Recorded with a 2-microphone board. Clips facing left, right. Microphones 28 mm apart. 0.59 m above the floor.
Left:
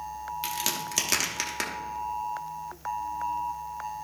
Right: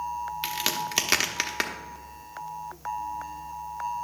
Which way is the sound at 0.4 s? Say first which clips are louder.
Right 2 dB; 25° right (ahead or behind).